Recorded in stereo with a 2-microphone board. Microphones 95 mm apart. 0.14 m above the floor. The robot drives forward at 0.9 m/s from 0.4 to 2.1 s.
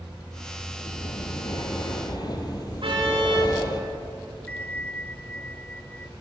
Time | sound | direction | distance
0.8 | breathing | 55° left (ahead or behind) | 3 m
2.8 | a car horn | 60° right (ahead or behind) | 8 m
4.5 | a bell | 15° left (ahead or behind) | 0.5 m